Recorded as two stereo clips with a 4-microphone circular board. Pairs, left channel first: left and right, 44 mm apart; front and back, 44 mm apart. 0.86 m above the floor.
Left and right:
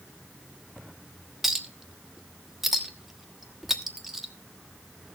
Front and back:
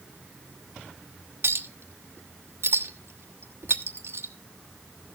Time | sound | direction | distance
1.4 | a clink | 175° right | 1.1 m